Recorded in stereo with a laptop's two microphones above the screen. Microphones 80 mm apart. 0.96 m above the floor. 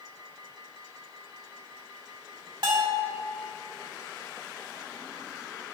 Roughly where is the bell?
Right.